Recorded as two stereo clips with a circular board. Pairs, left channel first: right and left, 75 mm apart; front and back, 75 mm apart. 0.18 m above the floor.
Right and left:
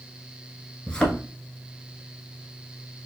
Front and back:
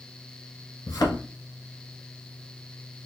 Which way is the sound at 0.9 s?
10° right.